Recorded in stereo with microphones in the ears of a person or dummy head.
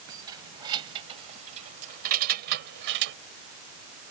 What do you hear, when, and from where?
0.1 s keys jangling: 20° right (ahead or behind); by 3.2 s 70° right (ahead or behind)